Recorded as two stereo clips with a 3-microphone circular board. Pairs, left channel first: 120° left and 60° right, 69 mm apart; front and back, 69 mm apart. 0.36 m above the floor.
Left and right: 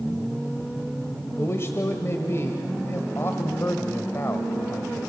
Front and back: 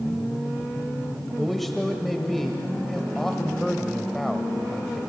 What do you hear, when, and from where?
1.4 s a man speaking: 85° left, 1.4 m